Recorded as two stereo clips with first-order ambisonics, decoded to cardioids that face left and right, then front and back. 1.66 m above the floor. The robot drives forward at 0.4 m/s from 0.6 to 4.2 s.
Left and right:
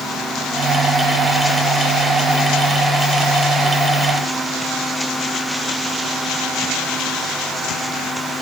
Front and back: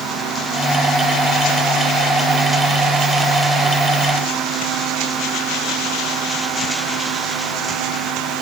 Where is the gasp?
I don't hear a gasp.